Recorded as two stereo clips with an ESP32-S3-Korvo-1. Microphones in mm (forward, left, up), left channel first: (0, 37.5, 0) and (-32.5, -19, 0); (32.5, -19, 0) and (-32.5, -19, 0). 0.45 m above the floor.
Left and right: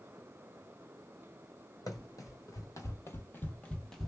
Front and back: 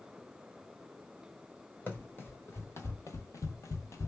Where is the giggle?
No giggle in this recording.